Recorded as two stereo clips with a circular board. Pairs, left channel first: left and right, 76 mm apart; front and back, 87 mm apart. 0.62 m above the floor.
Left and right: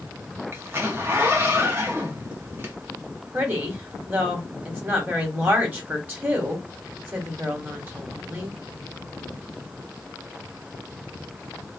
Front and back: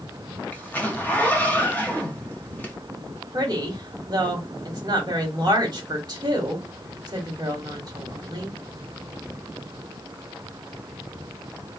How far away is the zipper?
About 0.8 m.